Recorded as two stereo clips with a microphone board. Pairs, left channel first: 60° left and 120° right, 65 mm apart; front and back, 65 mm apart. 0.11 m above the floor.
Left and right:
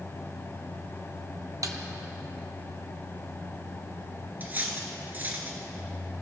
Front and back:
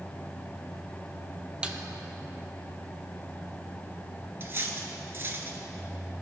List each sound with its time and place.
1.6 s a snare drum: 105° right, 0.6 m
4.4 s cutlery clinking: 160° right, 0.8 m